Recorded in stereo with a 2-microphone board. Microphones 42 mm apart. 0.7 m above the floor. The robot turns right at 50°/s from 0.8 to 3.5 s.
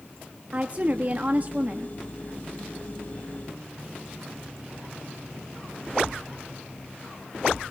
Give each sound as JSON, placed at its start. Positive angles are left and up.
{"t": 0.5, "sound": "a woman speaking", "azimuth_deg": -115, "distance_m": 1.0}